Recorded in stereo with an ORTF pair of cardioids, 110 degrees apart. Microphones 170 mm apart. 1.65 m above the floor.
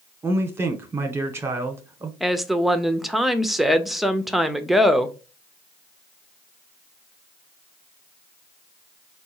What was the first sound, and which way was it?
A man speaking, 15° right.